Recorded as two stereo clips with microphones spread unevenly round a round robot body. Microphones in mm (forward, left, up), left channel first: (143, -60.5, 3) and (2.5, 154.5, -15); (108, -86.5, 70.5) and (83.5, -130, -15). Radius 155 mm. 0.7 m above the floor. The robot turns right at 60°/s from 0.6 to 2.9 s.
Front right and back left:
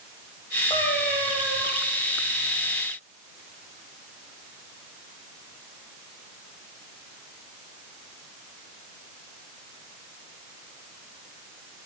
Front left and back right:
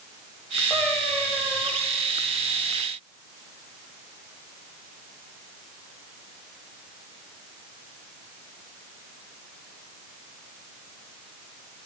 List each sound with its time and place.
0.7 s a cat meowing: 15° left, 6 m; by 1.7 s 75° left, 6 m